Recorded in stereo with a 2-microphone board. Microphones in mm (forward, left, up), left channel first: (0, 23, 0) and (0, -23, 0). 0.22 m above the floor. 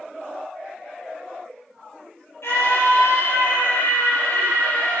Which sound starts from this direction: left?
A scream, at 2.4 s.